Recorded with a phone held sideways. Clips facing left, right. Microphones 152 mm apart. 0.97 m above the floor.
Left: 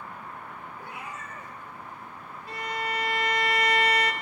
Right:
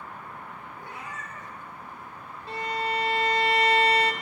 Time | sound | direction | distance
0.8 | a cat meowing | 10° left (ahead or behind) | 1.6 m
2.5 | a violin | 25° right (ahead or behind) | 0.8 m